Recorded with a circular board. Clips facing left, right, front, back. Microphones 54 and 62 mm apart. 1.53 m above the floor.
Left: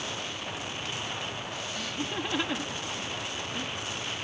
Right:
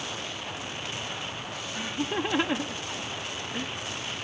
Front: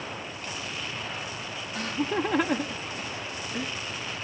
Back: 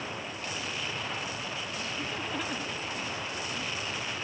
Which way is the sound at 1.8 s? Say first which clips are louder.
Right 5 dB, front 12 dB; 25° right.